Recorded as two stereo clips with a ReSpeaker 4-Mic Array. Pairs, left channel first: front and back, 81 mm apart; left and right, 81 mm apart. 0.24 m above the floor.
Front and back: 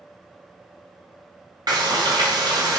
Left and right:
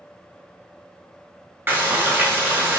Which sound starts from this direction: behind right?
Frying, at 1.7 s.